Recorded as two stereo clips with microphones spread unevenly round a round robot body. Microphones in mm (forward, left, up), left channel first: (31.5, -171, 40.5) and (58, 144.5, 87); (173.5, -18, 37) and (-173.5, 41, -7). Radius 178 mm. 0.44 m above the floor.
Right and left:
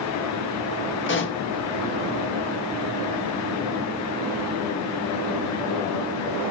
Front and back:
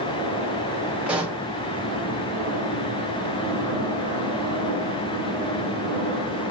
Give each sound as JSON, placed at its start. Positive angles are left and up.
{"t": 1.1, "sound": "a pop", "azimuth_deg": -110, "distance_m": 0.8}